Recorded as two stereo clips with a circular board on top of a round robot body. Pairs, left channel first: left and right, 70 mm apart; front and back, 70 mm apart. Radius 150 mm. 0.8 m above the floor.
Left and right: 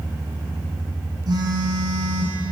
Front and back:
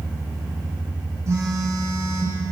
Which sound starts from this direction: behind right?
A phone buzzing, at 1.3 s.